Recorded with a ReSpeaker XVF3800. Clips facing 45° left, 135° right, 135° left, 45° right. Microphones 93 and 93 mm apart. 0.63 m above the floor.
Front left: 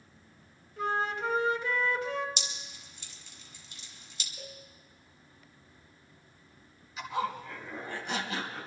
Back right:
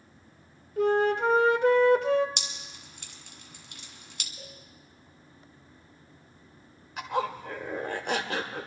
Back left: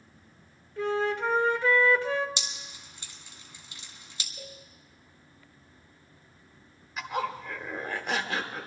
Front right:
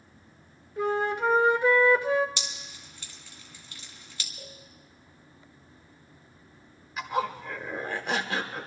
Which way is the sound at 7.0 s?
135° right.